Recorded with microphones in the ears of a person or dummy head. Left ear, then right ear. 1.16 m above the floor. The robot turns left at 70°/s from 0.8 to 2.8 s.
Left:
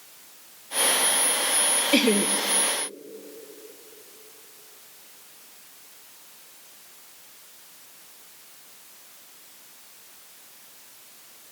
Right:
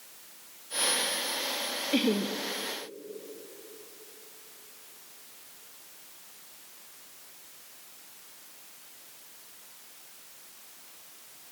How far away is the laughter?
About 1.3 m.